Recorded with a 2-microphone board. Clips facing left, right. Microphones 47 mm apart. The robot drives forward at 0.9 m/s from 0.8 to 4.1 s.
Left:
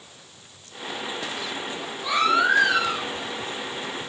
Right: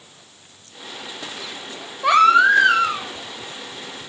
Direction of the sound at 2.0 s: 65° right (ahead or behind).